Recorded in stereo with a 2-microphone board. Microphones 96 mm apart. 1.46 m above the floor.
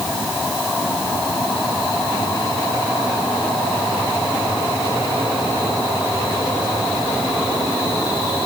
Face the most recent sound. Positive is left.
No sound to turn to.